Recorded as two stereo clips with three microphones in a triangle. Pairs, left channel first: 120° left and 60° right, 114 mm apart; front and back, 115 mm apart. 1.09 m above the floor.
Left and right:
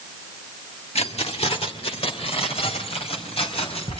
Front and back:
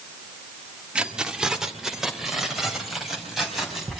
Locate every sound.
0.9 s keys jangling: 100° left, 1.2 m; by 4.0 s 90° left, 5.5 m